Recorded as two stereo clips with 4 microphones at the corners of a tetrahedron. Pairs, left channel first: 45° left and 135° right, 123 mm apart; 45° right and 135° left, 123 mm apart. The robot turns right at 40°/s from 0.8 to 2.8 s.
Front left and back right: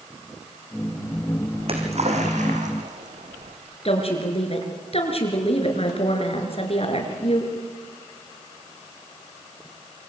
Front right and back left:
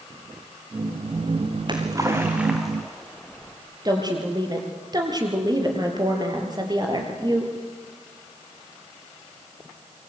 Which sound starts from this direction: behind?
A splash, at 1.6 s.